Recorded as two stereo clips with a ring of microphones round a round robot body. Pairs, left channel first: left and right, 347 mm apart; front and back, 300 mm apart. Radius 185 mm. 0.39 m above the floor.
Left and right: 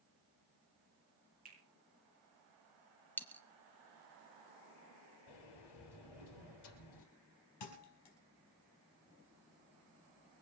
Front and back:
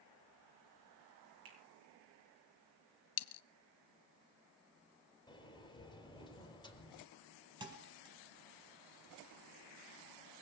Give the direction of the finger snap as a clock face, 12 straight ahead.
5 o'clock.